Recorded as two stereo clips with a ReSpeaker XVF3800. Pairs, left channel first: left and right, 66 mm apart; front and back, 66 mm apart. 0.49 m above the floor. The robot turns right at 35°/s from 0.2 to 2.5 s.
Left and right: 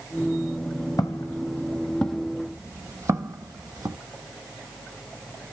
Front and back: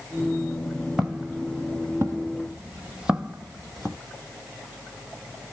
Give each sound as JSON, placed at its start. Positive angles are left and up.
{"t": 1.0, "sound": "footsteps", "azimuth_deg": 95, "distance_m": 1.0}